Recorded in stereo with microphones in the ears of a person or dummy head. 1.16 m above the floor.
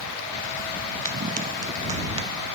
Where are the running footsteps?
45° right (ahead or behind); by 2.3 s 35° right (ahead or behind).